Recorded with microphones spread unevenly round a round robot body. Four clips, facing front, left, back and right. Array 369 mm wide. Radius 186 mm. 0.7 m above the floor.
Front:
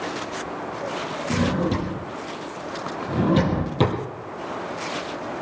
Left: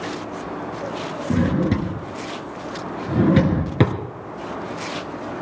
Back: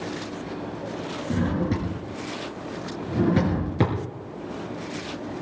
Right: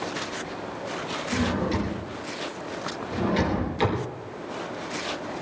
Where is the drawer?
65° left, 3 m.